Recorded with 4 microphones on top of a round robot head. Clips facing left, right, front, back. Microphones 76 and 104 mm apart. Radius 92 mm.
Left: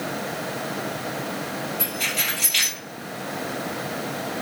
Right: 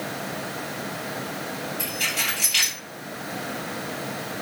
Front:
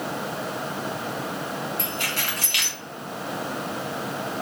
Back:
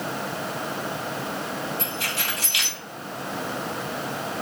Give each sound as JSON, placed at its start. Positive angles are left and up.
{"t": 1.8, "sound": "keys jangling", "azimuth_deg": 0, "distance_m": 1.6}